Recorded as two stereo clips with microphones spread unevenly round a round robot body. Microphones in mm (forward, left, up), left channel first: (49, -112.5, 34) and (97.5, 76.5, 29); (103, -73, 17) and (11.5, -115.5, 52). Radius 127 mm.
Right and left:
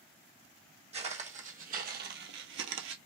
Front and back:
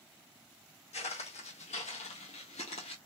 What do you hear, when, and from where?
0.9 s footsteps: 20° left, 1.2 m; by 3.0 s 85° left, 0.7 m